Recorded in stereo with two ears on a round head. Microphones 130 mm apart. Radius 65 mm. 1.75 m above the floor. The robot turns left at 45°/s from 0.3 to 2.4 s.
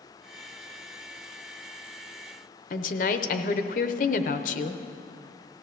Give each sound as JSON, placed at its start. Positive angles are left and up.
{"t": 2.7, "sound": "a woman speaking", "side_deg": 60, "distance_m": 0.8}